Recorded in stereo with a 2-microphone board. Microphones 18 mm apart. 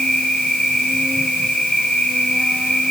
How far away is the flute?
I don't hear a flute.